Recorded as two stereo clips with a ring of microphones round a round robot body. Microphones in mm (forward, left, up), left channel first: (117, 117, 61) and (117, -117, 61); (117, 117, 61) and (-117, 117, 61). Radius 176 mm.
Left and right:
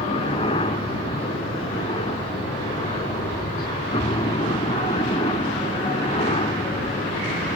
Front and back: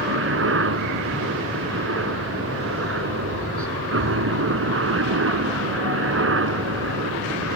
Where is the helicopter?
160° left.